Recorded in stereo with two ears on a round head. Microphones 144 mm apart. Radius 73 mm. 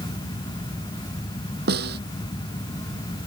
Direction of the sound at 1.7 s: 70° right (ahead or behind).